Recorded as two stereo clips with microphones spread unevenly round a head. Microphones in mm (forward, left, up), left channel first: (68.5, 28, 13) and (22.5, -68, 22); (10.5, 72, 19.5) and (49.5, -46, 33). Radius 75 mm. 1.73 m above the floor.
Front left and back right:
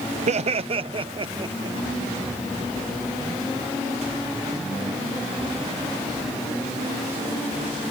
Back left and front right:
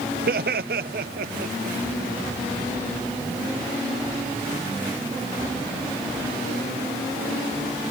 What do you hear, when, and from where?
0.3 s laughter: 95° right; by 1.8 s 70° right